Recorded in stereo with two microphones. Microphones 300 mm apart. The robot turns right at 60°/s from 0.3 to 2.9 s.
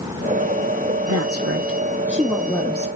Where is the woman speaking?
80° right, 1.0 m; by 2.9 s 25° left, 1.0 m.